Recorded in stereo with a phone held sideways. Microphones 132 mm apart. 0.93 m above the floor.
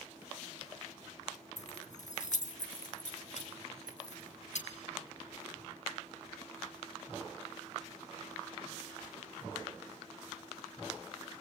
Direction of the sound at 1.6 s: 65° left (ahead or behind).